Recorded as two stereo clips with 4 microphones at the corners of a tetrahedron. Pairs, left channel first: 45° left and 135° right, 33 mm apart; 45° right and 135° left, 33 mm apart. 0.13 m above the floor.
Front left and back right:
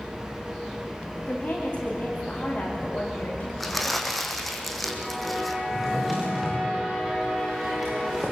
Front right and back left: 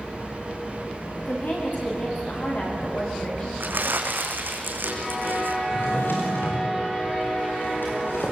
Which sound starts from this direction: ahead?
A woman speaking, at 1.2 s.